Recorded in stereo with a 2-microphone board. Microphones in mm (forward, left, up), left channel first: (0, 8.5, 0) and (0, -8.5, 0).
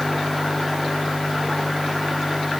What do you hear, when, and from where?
Only background noise.